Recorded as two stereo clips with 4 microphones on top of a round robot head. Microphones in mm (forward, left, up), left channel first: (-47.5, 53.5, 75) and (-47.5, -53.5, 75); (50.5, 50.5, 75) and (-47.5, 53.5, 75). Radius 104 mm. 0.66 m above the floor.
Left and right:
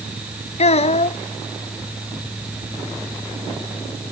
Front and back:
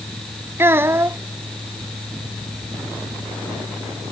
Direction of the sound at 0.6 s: 110° left.